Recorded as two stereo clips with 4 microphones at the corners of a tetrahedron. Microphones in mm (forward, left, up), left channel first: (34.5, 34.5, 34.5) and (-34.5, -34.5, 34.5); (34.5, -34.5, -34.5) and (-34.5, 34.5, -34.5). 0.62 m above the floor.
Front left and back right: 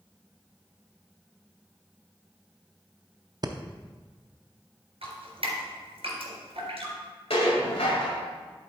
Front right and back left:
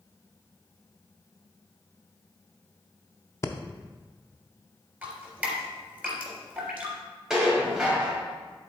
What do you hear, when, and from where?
3.4 s breathing: 100° right, 0.5 m
5.0 s dripping: 150° right, 3 m
7.3 s dishes clattering: 50° left, 1.9 m